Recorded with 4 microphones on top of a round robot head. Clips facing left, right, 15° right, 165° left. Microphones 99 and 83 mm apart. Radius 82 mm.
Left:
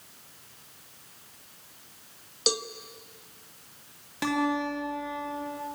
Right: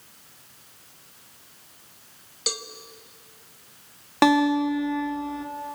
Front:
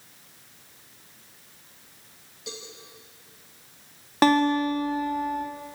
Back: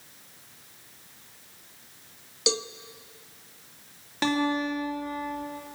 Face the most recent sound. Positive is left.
turn(degrees=-60)